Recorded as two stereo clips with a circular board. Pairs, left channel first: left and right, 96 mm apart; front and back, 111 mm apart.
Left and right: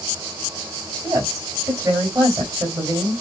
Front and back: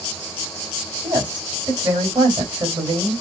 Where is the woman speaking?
140° right, 2.5 m.